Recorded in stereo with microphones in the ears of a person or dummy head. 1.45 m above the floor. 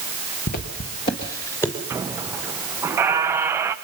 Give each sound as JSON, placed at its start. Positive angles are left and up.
{"t": 0.5, "sound": "footsteps", "side_deg": 45, "distance_m": 1.9}
{"t": 1.9, "sound": "a squeak", "side_deg": -10, "distance_m": 0.7}